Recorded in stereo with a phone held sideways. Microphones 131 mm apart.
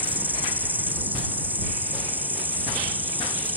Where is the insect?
10° right (ahead or behind).